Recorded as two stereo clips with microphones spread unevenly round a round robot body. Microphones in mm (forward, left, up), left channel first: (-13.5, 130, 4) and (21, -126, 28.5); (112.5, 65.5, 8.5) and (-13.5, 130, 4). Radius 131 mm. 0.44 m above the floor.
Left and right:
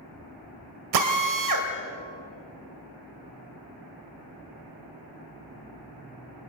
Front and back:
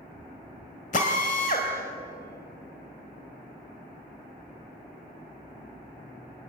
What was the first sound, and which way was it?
A drill, 80° right.